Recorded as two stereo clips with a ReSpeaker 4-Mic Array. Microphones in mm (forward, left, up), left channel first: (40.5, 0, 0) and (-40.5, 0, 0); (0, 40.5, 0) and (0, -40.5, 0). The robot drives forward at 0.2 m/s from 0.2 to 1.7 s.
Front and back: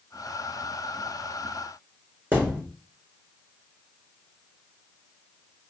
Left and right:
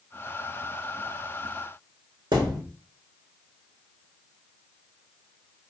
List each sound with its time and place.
2.3 s a thud: 115° right, 1.1 m